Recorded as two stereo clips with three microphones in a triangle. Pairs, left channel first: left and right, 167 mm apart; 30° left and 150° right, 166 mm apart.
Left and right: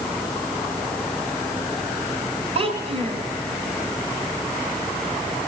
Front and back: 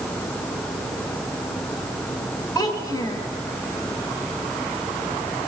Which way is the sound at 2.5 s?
40° right.